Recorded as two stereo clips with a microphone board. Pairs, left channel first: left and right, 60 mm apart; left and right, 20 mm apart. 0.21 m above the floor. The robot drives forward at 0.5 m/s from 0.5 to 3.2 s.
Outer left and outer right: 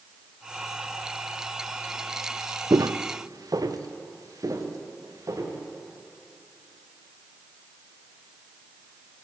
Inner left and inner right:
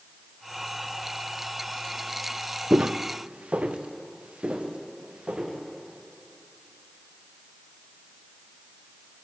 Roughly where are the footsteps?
Right.